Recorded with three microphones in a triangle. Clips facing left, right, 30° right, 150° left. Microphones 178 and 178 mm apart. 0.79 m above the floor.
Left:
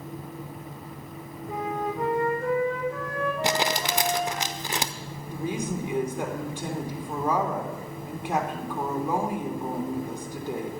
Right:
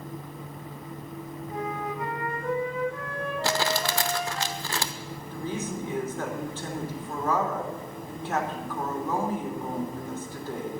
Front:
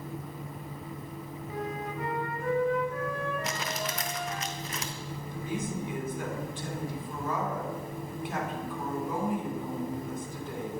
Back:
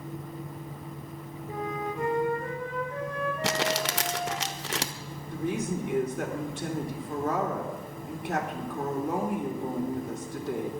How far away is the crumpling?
About 0.8 m.